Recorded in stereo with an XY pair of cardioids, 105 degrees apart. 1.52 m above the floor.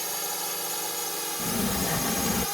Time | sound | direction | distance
0.0 | a drone | straight ahead | ?
1.4 | a sliding door | 30° left | ?